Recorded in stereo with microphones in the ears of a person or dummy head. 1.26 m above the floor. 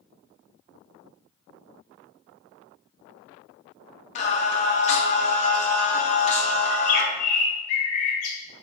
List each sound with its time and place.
4.2 s singing: 35° left (ahead or behind), 0.6 m
6.7 s a bird: 55° left (ahead or behind), 0.9 m